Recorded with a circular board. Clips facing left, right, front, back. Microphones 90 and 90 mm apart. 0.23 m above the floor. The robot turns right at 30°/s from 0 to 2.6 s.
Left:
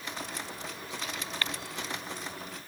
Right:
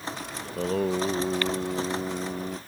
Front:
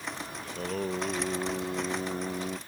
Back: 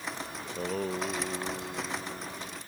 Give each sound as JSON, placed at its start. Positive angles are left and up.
{"t": 0.4, "sound": "singing", "azimuth_deg": -100}